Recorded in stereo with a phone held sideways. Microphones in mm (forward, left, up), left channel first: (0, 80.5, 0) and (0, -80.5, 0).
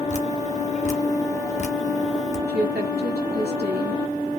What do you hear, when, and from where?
0.1 s dripping: 45° left (ahead or behind), 0.9 m
2.5 s a woman speaking: 80° right, 1.6 m